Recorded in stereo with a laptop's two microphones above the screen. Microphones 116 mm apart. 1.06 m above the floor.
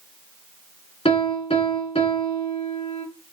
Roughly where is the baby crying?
I don't hear a baby crying.